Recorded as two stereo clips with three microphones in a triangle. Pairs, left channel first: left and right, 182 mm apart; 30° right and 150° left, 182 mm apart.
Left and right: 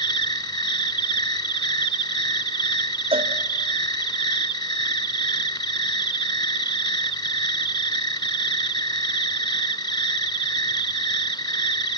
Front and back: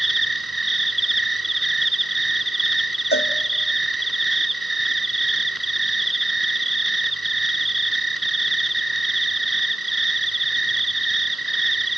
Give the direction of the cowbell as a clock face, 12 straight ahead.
1 o'clock.